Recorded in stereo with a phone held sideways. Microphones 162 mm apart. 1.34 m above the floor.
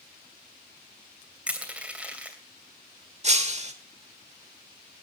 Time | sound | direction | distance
1.5 | crushing | 10° right (ahead or behind) | 2.5 m
3.2 | breaking glass | 45° right (ahead or behind) | 1.5 m